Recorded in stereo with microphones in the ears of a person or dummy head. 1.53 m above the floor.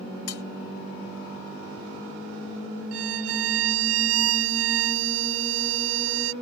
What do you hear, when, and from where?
0.3 s cutlery clinking: 65° left (ahead or behind)
2.9 s a violin: 80° right